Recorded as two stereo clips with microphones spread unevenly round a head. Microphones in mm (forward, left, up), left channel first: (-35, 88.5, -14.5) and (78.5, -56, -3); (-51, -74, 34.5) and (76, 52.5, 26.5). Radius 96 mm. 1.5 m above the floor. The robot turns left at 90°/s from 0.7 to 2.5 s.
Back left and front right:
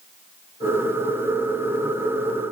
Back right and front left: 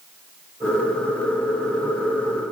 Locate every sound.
Only background noise.